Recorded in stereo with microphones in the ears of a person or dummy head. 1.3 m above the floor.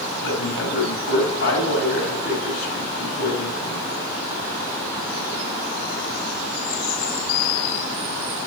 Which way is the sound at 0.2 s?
85° left.